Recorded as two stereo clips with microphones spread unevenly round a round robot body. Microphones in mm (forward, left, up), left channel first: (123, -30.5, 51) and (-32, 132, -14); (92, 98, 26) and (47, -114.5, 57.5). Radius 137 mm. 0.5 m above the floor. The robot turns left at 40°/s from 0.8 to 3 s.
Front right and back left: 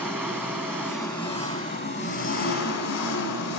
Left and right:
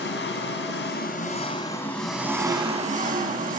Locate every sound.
0.0 s an engine running: 40° left, 1.8 m; by 3.6 s 50° right, 1.8 m